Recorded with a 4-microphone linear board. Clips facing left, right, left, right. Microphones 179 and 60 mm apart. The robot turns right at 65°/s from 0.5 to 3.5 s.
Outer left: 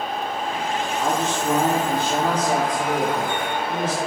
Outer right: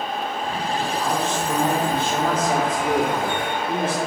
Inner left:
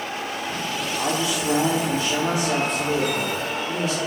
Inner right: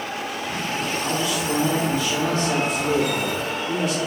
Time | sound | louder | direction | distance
1.0 | a man speaking | outer left 1 dB, inner left 3 dB | 75° left | 1.4 m